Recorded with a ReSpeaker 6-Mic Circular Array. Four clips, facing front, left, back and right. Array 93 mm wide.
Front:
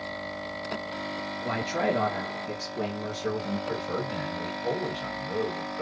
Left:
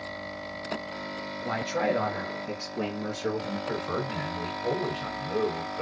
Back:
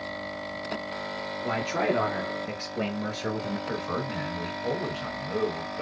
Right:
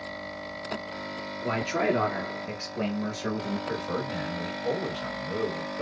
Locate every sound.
1.4 s a man speaking: 100° right, 1.2 m; by 3.6 s 170° left, 1.7 m
3.7 s a man speaking: 135° left, 2.0 m